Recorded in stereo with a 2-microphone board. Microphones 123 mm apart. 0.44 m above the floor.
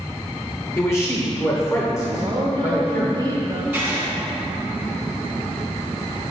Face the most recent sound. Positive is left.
turn(degrees=-10)  # may be behind; listen again after turning